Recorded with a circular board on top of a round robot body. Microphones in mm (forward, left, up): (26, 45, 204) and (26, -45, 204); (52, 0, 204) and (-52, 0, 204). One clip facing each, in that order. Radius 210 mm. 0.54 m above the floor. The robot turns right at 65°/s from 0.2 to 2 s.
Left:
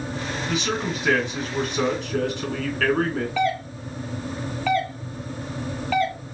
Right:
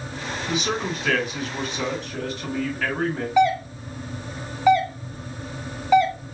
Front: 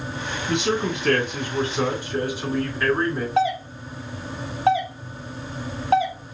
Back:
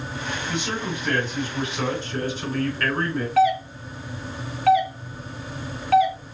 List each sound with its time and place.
0.5 s a man speaking: 20° right, 2.5 m; by 3.3 s 80° left, 2.5 m
3.4 s a doorbell: 35° right, 1.3 m